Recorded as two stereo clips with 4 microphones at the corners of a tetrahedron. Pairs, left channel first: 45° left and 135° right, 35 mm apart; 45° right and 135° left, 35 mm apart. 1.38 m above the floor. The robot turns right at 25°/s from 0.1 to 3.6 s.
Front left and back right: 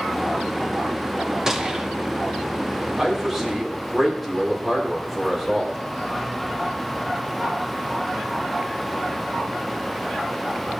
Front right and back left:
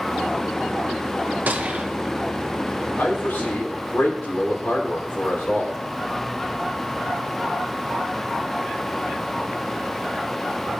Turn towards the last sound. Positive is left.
turn(degrees=-40)